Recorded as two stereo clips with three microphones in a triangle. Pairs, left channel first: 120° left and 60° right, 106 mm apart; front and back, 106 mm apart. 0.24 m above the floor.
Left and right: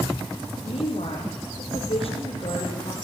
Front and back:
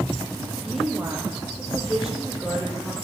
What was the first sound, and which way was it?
A woman speaking, 95° left.